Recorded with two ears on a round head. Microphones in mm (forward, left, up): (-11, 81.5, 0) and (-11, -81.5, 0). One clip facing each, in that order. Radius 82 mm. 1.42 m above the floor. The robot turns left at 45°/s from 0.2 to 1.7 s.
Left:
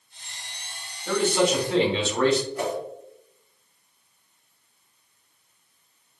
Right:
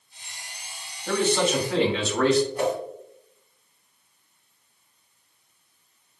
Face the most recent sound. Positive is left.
turn(degrees=-20)  # may be behind; listen again after turning